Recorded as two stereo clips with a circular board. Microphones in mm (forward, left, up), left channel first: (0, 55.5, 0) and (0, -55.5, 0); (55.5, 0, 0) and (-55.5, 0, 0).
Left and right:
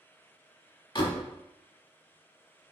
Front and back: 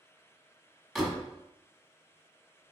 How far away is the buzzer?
I don't hear a buzzer.